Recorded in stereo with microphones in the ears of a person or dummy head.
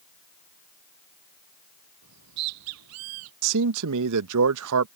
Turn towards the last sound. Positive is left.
turn(degrees=-60)  # may be behind; listen again after turning